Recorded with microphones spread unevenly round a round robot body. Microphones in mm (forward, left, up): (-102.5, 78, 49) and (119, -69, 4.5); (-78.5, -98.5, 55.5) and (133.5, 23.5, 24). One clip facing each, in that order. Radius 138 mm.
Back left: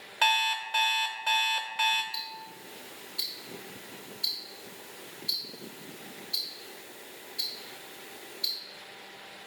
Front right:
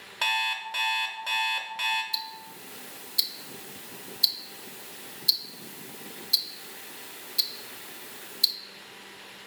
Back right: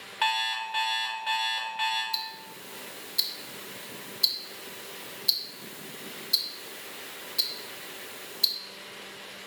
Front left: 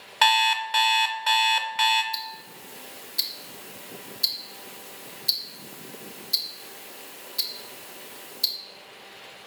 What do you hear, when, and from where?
0.2 s an alarm clock: 50° left, 0.5 m
2.1 s ticking: 60° right, 0.6 m